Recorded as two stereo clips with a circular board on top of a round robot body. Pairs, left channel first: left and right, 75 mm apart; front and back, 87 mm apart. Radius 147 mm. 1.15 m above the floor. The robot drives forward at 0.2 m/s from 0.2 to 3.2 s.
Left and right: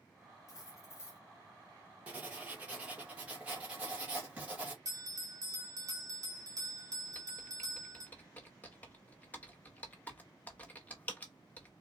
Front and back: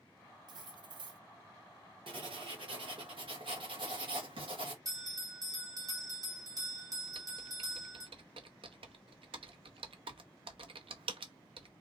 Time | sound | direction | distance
0.5 | cutlery clinking | 140° left | 0.5 m
2.1 | writing | 165° right | 2 m
4.8 | a bell | 130° right | 1.7 m
7.1 | typing on a keyboard | 160° left | 0.8 m